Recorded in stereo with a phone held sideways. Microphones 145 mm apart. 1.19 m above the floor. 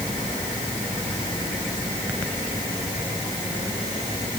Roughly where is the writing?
I don't hear writing.